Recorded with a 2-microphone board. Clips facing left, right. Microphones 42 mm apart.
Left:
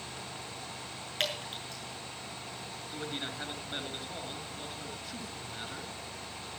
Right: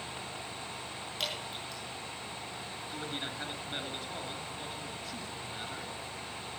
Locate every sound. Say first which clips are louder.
1.2 s dripping: left 4 dB; 50° left (ahead or behind), 6.5 m
2.9 s a man speaking: left 1 dB; centre (ahead or behind), 4.5 m